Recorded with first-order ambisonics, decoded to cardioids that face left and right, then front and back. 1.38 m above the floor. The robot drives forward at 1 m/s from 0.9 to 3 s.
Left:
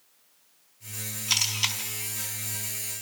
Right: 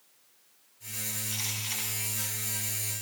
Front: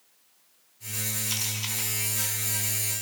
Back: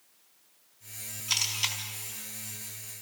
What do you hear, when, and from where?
1.3 s a camera shutter: 105° left, 4 m; by 1.8 s 115° left, 4 m